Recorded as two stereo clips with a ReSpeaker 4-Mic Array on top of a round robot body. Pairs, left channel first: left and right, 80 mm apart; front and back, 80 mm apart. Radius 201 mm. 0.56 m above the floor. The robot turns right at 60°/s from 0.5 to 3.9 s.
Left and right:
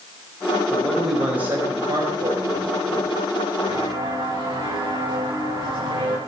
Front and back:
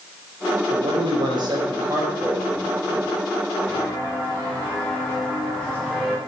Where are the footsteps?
75° right, 8.5 m; by 6.2 s 80° right, 6.5 m.